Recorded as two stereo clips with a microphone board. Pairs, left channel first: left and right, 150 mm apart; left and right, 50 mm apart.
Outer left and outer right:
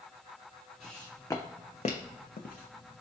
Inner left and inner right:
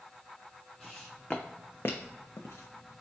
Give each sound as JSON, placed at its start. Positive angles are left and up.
{"t": 0.8, "sound": "footsteps", "side_deg": 0, "distance_m": 0.7}